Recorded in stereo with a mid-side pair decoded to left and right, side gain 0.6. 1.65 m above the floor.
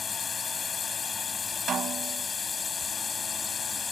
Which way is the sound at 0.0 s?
30° left.